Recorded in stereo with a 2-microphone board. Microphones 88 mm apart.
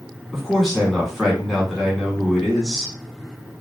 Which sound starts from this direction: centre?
A man speaking, at 0.3 s.